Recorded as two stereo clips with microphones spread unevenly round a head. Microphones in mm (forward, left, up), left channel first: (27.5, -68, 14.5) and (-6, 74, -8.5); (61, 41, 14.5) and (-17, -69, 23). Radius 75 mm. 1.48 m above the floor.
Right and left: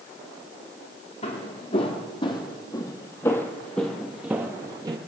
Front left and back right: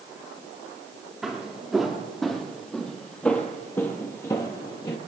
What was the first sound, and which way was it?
Footsteps, 40° right.